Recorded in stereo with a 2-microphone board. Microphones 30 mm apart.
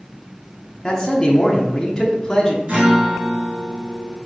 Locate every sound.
0.8 s a man speaking: 20° left (ahead or behind), 0.9 m
2.7 s a guitar: 35° right (ahead or behind), 2.5 m